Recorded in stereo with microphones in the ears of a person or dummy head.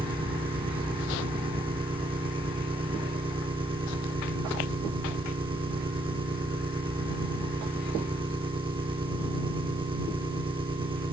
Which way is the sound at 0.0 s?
20° right (ahead or behind).